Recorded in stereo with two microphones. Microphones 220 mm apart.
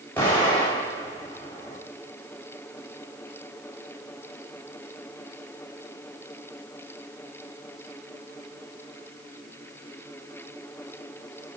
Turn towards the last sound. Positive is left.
turn(degrees=10)  # may be behind; listen again after turning